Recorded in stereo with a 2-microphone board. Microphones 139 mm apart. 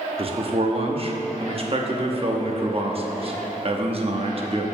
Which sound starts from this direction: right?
A man speaking, at 0.2 s.